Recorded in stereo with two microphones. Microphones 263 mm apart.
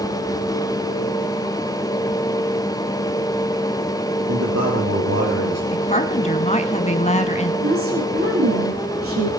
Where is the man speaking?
75° right (ahead or behind), 5 m.